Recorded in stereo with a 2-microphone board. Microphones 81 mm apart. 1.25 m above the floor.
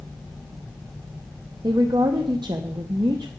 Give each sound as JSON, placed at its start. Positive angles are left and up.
{"t": 1.6, "sound": "a woman speaking", "side_deg": -60, "distance_m": 0.7}